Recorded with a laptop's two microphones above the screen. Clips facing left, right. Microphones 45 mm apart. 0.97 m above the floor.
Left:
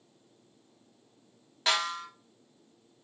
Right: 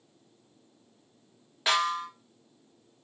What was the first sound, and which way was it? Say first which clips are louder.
A snare drum: right 3 dB; 10° right (ahead or behind).